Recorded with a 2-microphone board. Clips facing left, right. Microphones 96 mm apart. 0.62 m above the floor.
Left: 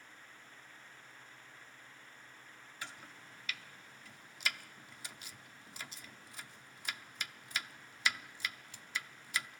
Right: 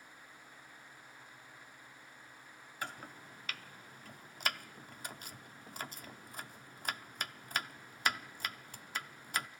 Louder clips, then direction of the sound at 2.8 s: Right 6 dB; 50° right (ahead or behind).